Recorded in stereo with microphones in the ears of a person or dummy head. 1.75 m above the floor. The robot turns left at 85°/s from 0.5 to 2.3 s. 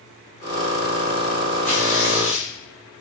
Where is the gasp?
I don't hear a gasp.